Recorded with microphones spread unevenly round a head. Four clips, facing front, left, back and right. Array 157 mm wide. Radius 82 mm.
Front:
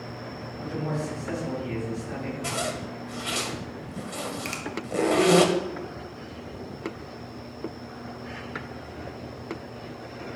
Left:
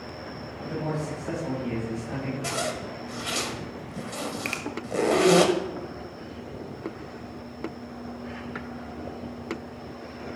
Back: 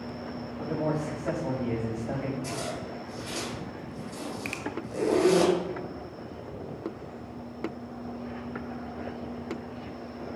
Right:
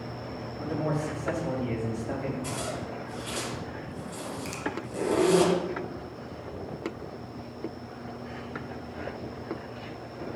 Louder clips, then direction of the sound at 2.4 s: Left 3 dB, front 3 dB; 50° left.